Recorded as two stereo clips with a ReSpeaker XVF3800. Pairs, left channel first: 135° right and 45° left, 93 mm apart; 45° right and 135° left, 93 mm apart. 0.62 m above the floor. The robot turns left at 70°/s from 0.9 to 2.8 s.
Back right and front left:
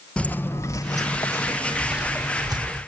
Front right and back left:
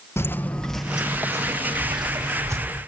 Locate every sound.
0.2 s footsteps: 70° right, 0.6 m; by 2.8 s 60° left, 1.7 m